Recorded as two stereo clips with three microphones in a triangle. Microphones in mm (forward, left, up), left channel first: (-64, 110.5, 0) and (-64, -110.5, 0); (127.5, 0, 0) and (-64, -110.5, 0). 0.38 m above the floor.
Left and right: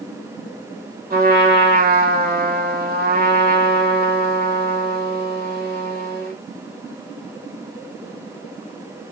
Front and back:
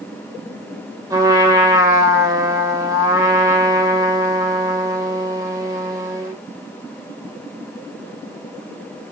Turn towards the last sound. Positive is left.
turn(degrees=-80)